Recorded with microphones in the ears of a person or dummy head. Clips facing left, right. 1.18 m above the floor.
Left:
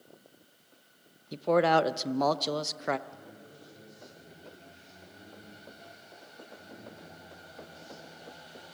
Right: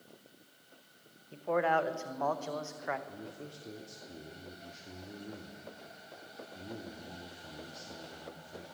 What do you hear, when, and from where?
1.3 s a man speaking: 50° left (ahead or behind), 0.8 m
3.1 s a man speaking: 65° right (ahead or behind), 3 m